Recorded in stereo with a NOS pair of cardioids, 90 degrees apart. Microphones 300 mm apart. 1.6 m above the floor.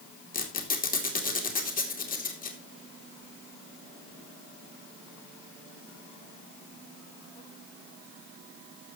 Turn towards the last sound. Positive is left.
turn(degrees=25)